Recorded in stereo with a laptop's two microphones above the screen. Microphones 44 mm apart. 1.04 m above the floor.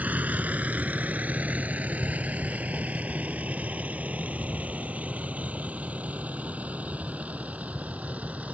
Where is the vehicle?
40° right (ahead or behind); by 8.5 s 35° right (ahead or behind).